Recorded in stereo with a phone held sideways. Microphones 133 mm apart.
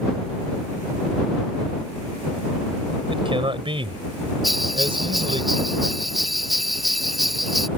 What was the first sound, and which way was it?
A man speaking, 40° right (ahead or behind).